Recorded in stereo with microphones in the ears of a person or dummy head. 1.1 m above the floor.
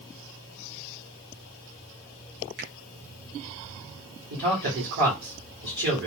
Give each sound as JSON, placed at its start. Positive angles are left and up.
{"t": 2.6, "sound": "a finger snap", "side_deg": -50, "distance_m": 1.4}
{"t": 4.3, "sound": "a man speaking", "side_deg": -55, "distance_m": 1.8}